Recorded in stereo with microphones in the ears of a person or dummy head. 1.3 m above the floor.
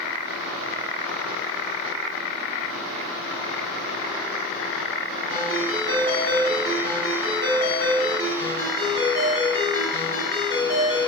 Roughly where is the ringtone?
Right.